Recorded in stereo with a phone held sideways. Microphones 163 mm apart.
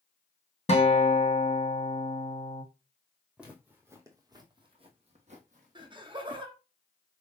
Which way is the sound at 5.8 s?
30° right (ahead or behind).